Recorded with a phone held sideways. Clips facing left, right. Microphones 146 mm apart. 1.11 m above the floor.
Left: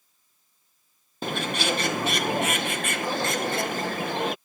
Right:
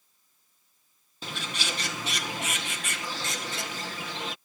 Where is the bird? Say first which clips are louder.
Left 9 dB; 55° left (ahead or behind).